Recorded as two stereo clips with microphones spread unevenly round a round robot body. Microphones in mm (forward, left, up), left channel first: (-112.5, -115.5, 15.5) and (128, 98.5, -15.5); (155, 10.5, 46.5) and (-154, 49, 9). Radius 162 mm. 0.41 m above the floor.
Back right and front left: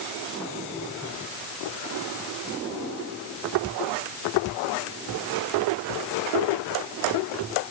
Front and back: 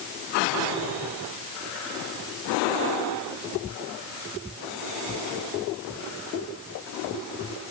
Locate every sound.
Only background noise.